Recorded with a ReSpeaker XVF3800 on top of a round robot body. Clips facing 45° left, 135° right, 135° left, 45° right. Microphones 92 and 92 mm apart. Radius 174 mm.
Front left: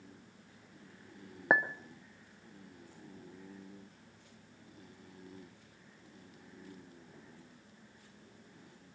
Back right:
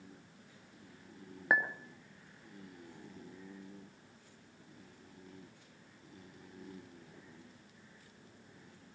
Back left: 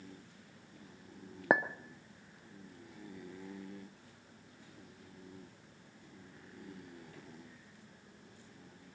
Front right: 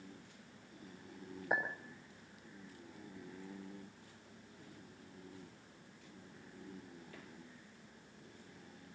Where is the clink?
110° left, 0.7 m.